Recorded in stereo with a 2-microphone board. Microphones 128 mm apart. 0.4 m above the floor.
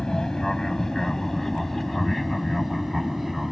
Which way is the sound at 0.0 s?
5° left (ahead or behind).